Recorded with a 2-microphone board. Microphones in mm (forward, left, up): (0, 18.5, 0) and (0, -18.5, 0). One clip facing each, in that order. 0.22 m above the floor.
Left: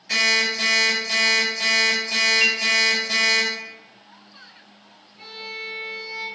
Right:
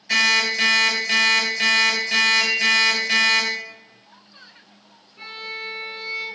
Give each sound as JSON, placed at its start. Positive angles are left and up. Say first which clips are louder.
{"t": 0.1, "sound": "an alarm clock", "louder": "right 2 dB", "side_deg": -40, "distance_m": 1.5}
{"t": 2.4, "sound": "a clink", "louder": "left 1 dB", "side_deg": 30, "distance_m": 0.9}
{"t": 5.2, "sound": "a violin", "louder": "right 2 dB", "side_deg": -50, "distance_m": 0.7}